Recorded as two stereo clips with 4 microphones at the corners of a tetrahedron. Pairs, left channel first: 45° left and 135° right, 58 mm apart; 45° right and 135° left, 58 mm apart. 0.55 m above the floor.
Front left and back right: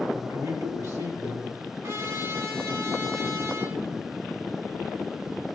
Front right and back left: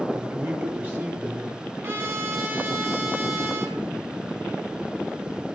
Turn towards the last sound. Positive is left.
turn(degrees=-175)